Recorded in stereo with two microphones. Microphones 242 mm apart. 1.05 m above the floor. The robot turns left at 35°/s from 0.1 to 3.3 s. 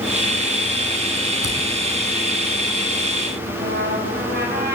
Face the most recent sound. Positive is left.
turn(degrees=-40)  # may be behind; listen again after turning